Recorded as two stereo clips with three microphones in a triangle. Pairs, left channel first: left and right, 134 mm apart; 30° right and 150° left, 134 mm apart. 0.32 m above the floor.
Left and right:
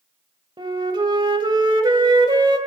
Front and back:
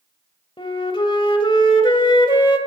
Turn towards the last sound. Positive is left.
turn(degrees=-60)